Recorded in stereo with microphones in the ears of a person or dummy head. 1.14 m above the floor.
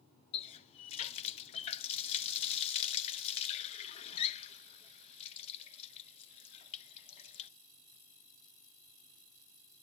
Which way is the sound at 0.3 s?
30° left (ahead or behind).